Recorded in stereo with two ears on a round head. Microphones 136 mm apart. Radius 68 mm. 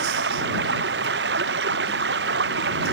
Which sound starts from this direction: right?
Running water, at 0.0 s.